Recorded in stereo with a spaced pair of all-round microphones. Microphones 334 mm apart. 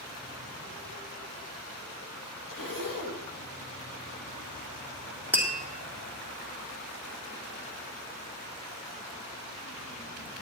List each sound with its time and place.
2.5 s a zipper: 70° left (ahead or behind), 1.3 m
5.3 s tapping: 5° right (ahead or behind), 2 m